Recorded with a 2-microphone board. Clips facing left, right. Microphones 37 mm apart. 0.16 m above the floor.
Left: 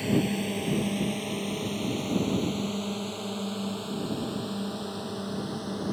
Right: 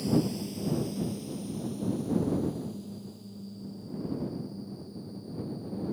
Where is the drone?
50° left (ahead or behind); by 5.9 s 75° left (ahead or behind).